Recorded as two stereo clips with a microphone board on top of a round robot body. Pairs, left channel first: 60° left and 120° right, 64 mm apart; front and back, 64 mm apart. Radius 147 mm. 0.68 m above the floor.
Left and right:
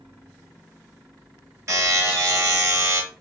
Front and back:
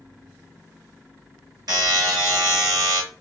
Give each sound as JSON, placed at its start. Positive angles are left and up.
{"t": 1.7, "sound": "a buzzer", "azimuth_deg": -165, "distance_m": 1.5}